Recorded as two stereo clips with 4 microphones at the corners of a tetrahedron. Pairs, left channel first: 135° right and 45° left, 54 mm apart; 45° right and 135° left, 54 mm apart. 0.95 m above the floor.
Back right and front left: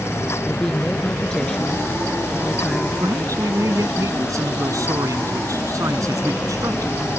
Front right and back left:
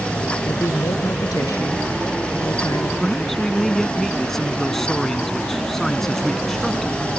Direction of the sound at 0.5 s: 55° right.